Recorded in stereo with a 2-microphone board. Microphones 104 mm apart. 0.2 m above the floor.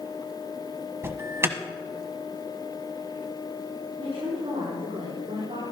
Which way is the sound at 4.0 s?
70° right (ahead or behind).